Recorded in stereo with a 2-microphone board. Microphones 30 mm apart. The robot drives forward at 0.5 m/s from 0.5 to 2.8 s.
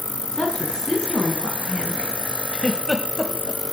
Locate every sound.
0.3 s a woman speaking: 25° left (ahead or behind), 3 m; by 2.1 s 35° left (ahead or behind), 2.5 m
2.5 s a giggle: 20° left (ahead or behind), 1.2 m